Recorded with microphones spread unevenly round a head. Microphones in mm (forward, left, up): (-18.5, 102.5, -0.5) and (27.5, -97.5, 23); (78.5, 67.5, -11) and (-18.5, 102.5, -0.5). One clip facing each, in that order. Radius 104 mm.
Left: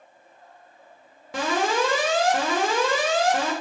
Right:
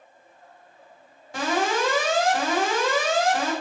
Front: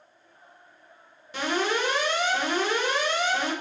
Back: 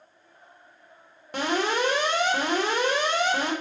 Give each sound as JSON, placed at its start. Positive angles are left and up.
{"t": 1.3, "sound": "an alarm", "azimuth_deg": 120, "distance_m": 3.5}